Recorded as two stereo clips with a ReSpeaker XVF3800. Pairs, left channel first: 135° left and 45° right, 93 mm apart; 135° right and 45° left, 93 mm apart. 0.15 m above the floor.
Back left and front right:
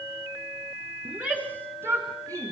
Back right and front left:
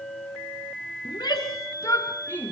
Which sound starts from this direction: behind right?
A shout, at 1.1 s.